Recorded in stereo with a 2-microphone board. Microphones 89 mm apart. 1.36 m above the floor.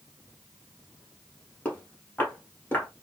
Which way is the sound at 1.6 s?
20° left (ahead or behind).